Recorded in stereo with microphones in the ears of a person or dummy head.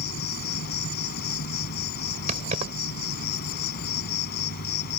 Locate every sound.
0.0 s an insect: 50° left (ahead or behind)
2.3 s keys jangling: 35° right (ahead or behind)